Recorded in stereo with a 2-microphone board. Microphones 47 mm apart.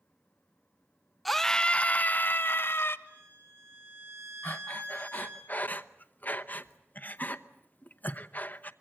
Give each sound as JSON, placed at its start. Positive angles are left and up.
{"t": 1.2, "sound": "a scream", "side_deg": 0, "distance_m": 0.8}
{"t": 3.1, "sound": "a violin", "side_deg": -50, "distance_m": 9.0}
{"t": 4.4, "sound": "breathing", "side_deg": 40, "distance_m": 0.9}